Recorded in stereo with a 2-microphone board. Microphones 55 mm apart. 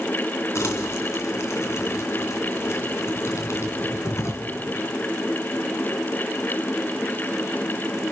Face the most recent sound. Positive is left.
turn(degrees=60)  # may be behind; listen again after turning